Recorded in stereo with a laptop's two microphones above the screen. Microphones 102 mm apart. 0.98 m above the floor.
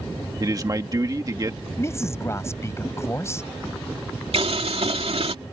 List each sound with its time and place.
0.4 s a man speaking: 35° right (ahead or behind)
1.8 s a man speaking: 25° left (ahead or behind)
4.3 s boiling: 75° right (ahead or behind)